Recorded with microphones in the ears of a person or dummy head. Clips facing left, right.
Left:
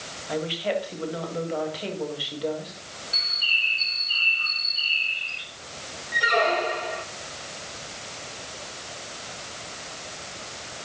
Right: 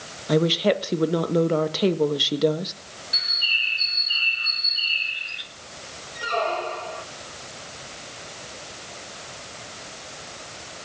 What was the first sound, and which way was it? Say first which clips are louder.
A woman speaking: right 7 dB; 60° right (ahead or behind).